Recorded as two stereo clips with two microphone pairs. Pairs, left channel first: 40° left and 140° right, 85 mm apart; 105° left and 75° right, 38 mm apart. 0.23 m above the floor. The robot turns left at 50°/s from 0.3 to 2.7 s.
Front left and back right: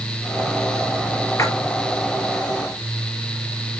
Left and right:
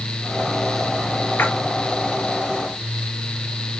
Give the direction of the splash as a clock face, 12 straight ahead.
9 o'clock.